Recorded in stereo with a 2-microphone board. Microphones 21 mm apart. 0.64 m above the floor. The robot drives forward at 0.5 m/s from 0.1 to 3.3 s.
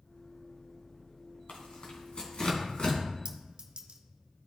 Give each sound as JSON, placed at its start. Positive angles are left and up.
{"t": 1.5, "sound": "tearing paper", "side_deg": 65, "distance_m": 2.0}
{"t": 3.2, "sound": "a clink", "side_deg": -60, "distance_m": 1.4}